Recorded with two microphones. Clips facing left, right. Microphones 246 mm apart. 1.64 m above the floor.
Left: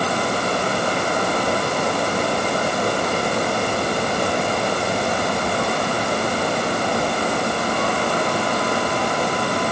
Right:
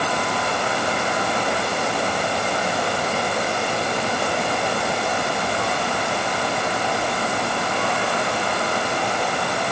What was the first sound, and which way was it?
Only background noise.